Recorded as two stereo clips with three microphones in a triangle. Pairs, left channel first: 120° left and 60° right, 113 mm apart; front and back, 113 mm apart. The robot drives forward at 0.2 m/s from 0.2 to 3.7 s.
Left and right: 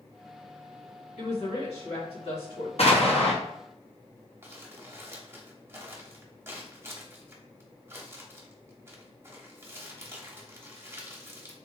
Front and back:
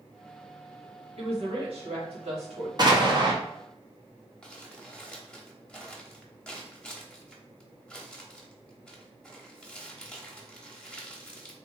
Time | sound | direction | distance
1.2 | a woman speaking | 145° left | 1.9 m
2.8 | an explosion | 130° left | 0.8 m
4.4 | crumpling | 70° right | 0.8 m